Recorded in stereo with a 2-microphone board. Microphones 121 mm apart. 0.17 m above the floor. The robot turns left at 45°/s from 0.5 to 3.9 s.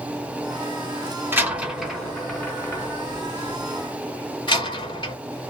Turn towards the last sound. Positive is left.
turn(degrees=40)  # may be behind; listen again after turning